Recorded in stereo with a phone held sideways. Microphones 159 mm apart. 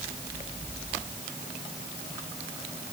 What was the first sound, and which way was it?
Only background noise.